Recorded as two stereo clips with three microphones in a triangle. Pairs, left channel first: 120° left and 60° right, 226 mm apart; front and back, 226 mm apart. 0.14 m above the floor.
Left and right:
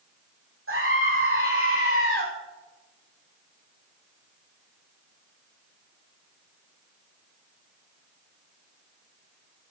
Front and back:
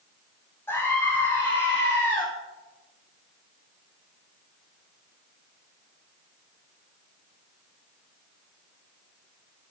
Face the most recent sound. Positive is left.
turn(degrees=-80)